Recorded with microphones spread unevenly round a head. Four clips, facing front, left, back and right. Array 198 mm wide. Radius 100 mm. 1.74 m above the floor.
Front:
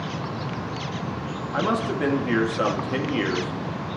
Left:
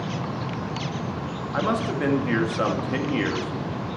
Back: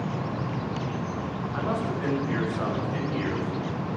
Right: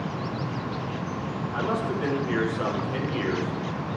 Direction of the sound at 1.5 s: 35° left.